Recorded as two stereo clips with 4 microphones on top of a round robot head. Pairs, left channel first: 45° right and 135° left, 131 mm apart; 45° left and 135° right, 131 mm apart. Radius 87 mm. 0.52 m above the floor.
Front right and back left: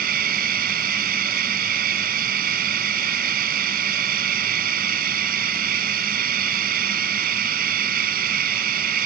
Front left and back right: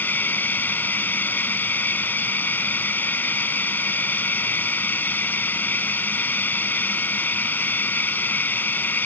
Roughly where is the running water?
Behind left.